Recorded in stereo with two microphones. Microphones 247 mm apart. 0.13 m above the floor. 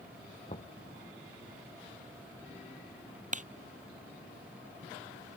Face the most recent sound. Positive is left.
turn(degrees=-30)  # may be behind; listen again after turning